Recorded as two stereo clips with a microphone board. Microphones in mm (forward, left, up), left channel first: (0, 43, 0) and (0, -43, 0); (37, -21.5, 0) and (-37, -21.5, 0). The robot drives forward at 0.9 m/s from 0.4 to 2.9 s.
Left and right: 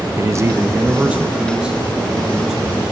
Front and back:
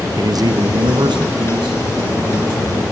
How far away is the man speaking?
About 0.5 m.